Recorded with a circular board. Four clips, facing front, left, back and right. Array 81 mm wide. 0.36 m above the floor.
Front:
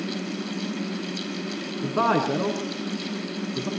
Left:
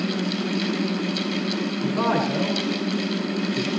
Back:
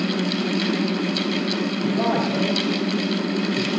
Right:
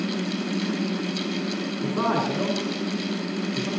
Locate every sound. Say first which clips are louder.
1.8 s a man speaking: left 1 dB, front 1 dB; straight ahead, 4 m; by 3.7 s 15° right, 3.5 m